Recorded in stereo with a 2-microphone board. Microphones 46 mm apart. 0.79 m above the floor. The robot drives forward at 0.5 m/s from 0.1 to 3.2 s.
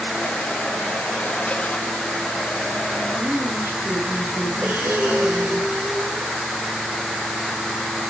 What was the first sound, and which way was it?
A woman speaking, 45° right (ahead or behind).